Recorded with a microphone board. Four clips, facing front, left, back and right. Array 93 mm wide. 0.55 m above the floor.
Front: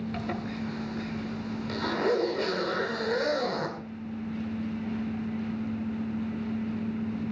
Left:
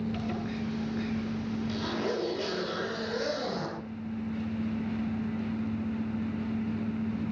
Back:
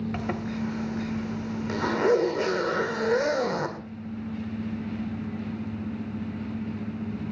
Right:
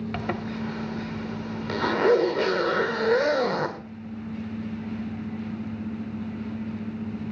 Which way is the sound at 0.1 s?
110° right.